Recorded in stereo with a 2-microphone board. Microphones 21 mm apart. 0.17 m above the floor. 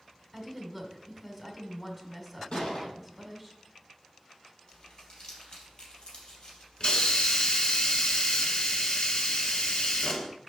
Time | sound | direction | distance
0.3 | a woman speaking | 10° right (ahead or behind) | 1.2 m
2.5 | a gunshot | 45° left (ahead or behind) | 3 m
4.7 | crumpling | 40° left (ahead or behind) | 3 m
6.8 | a hiss | 45° left (ahead or behind) | 1.2 m